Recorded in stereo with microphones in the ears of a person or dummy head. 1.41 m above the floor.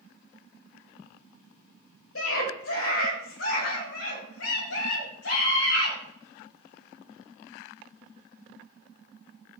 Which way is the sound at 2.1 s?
85° left.